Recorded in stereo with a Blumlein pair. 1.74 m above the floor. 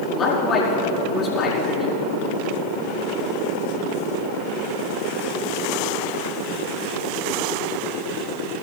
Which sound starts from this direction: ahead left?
A man speaking, at 0.1 s.